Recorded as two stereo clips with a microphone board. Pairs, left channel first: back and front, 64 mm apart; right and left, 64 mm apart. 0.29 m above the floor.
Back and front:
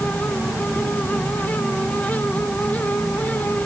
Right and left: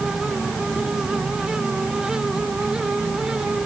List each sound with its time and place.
Only background noise.